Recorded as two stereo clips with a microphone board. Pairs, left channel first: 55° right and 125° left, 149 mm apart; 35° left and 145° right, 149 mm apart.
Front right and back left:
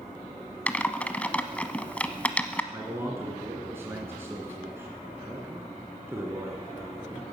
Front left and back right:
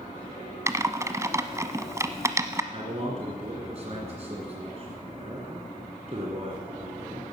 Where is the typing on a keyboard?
120° right, 0.9 m.